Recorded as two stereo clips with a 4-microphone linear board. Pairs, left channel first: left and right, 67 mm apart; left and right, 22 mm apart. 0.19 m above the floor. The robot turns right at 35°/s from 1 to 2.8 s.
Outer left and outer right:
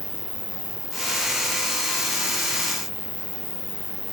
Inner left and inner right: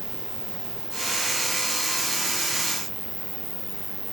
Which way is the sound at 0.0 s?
45° left.